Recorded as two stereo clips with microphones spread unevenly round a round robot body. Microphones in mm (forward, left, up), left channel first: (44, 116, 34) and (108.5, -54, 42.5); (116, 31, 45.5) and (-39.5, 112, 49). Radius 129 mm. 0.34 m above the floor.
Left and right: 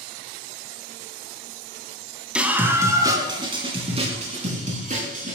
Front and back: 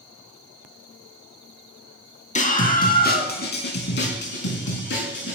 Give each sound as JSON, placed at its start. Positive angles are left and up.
{"t": 2.4, "sound": "a scream", "azimuth_deg": 15, "distance_m": 3.0}